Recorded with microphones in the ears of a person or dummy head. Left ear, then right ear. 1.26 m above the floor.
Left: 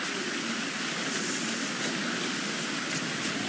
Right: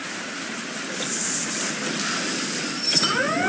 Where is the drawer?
No drawer in this recording.